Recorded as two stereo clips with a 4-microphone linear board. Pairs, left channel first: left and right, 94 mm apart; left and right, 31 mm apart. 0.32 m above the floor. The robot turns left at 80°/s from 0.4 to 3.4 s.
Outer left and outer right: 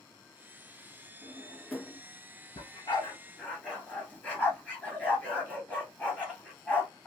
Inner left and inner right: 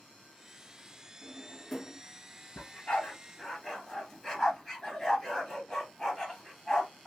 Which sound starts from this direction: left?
A dog barking, at 2.6 s.